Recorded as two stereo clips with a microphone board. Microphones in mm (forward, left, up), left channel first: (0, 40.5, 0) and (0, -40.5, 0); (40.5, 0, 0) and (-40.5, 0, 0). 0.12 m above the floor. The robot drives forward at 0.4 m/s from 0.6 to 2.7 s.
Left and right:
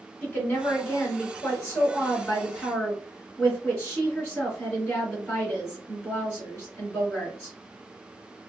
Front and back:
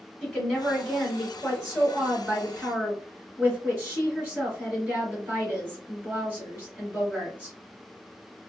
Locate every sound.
0.2 s a woman speaking: 55° left, 1.7 m; by 7.5 s 130° left, 1.8 m